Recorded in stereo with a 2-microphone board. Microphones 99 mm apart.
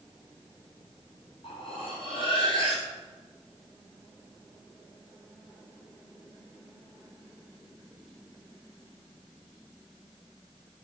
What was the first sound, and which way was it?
Cutlery clinking, 70° left (ahead or behind).